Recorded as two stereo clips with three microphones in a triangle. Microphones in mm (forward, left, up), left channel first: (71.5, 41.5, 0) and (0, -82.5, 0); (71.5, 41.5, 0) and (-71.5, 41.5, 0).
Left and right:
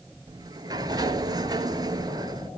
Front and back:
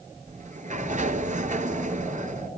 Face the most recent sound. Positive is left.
turn(degrees=-175)